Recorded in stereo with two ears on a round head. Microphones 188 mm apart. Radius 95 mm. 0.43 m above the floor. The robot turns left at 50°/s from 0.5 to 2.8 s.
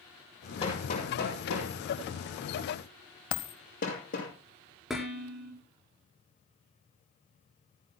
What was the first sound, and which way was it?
Hammering, 30° left (ahead or behind).